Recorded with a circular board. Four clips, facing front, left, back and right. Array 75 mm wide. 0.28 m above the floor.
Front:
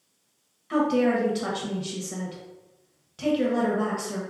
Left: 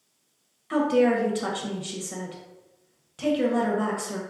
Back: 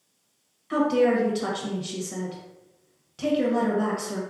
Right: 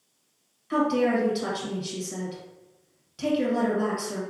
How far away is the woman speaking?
About 0.9 m.